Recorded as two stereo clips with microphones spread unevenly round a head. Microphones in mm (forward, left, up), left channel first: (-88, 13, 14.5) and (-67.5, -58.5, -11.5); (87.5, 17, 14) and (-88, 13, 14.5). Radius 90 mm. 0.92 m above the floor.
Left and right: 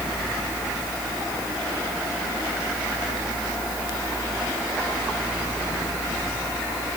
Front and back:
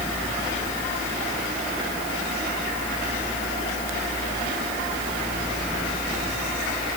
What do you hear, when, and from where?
0.0 s a fan: 85° left